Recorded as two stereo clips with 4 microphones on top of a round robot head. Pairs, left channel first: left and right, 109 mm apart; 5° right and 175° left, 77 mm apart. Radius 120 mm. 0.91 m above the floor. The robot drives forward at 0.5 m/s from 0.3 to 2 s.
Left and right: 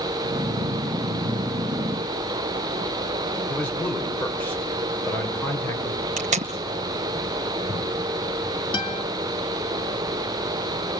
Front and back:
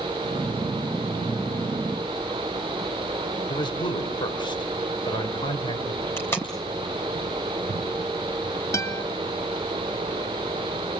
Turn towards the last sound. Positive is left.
turn(degrees=45)